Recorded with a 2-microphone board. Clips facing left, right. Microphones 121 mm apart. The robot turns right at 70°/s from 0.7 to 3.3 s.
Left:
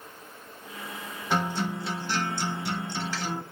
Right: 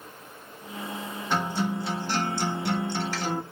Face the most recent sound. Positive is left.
turn(degrees=-50)